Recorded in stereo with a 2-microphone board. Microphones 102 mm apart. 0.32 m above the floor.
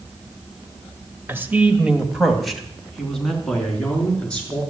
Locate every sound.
1.3 s a man speaking: 25° right (ahead or behind), 1.4 m; by 4.6 s 10° left (ahead or behind), 5.5 m